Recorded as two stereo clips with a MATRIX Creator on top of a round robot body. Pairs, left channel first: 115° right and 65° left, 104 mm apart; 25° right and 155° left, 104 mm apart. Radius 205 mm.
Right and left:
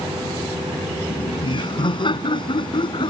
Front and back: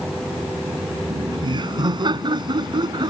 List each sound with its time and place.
1.1 s laughter: 155° right